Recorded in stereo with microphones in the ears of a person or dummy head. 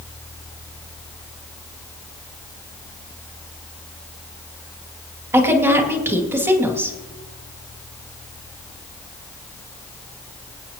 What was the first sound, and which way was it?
A woman speaking, 15° right (ahead or behind).